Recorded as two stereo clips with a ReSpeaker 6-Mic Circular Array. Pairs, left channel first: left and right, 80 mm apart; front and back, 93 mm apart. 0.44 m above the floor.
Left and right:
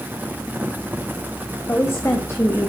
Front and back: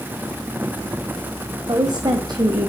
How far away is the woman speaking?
About 2 m.